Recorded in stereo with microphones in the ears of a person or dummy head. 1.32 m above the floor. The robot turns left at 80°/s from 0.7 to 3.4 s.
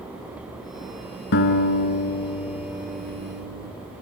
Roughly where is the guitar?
Left.